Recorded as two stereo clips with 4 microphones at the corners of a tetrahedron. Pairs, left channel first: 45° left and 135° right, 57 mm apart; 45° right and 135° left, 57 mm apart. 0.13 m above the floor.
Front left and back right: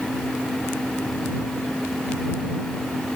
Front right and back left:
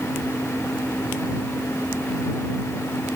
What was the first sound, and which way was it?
Only background noise.